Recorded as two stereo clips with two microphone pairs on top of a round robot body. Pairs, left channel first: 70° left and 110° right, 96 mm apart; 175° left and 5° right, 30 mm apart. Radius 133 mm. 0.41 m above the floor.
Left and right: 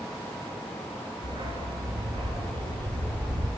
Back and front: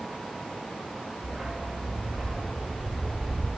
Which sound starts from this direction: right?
A dog barking, at 1.2 s.